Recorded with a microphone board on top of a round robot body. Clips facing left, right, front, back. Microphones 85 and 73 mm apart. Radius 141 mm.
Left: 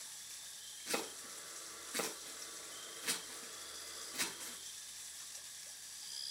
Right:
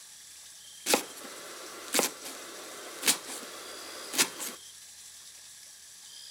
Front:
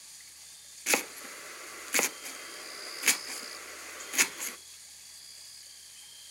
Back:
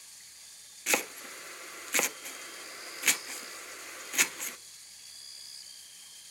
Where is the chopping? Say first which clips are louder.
Right 12 dB, even; 90° right, 0.7 m.